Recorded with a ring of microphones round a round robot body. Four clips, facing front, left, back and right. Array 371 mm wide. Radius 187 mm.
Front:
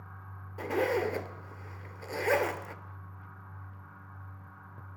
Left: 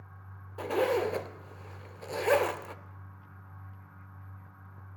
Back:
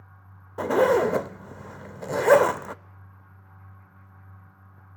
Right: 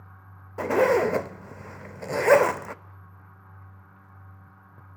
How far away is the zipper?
About 0.6 m.